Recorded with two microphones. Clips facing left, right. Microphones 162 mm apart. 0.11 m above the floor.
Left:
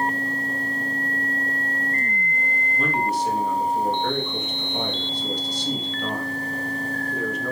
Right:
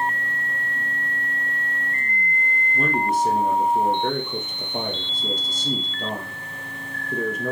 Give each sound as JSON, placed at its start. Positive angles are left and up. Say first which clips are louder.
{"t": 2.7, "sound": "a man speaking", "louder": "right 2 dB", "side_deg": -45, "distance_m": 3.0}